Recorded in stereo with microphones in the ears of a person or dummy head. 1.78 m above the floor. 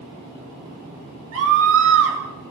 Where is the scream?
70° right (ahead or behind), 8.5 m.